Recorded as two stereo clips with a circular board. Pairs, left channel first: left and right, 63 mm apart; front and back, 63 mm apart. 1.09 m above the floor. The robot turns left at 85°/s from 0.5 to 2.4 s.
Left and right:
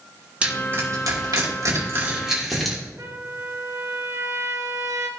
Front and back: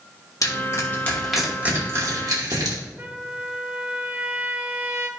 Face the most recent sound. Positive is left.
turn(degrees=-130)